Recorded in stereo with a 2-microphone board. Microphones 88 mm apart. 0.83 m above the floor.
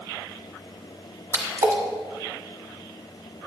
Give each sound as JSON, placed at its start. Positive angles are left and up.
{"t": 1.3, "sound": "a splash", "side_deg": -35, "distance_m": 1.3}